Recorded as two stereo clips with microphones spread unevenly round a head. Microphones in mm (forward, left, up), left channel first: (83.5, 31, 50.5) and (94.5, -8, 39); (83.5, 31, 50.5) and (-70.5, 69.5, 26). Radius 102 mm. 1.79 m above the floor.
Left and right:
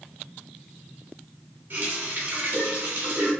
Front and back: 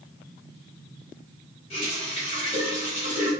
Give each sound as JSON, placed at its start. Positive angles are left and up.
{"t": 1.7, "sound": "a running tap", "azimuth_deg": -45, "distance_m": 1.3}